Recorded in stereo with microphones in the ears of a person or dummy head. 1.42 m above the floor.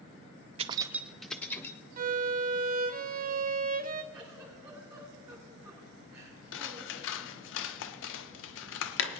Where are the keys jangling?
35° right (ahead or behind), 0.6 m; by 1.8 s 15° left (ahead or behind), 1.2 m.